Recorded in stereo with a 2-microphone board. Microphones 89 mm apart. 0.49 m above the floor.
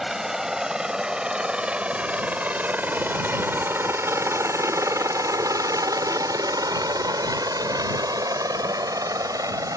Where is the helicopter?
5° right (ahead or behind); by 9.8 s 40° right (ahead or behind).